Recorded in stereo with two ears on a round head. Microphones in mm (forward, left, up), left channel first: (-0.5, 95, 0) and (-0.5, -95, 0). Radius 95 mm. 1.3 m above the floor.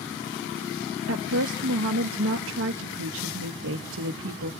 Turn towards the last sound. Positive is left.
turn(degrees=-65)  # may be behind; listen again after turning